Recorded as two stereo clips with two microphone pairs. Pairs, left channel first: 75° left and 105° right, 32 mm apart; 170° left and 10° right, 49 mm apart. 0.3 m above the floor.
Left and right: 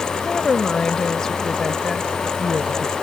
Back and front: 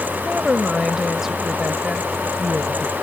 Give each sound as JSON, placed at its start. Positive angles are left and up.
{"t": 0.2, "sound": "a woman speaking", "azimuth_deg": 60}